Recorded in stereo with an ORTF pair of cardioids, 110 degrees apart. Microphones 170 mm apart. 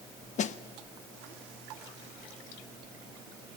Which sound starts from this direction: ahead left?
A snare drum, at 0.4 s.